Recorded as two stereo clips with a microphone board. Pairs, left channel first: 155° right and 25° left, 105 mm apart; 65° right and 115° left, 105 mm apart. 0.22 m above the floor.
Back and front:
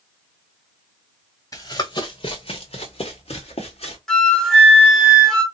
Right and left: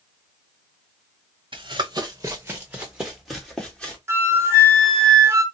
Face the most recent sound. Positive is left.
turn(degrees=125)